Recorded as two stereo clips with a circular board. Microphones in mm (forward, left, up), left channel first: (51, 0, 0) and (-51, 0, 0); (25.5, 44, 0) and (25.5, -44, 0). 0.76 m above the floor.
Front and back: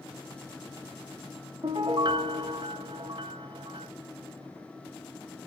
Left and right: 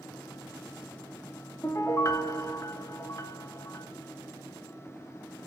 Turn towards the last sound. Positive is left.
turn(degrees=145)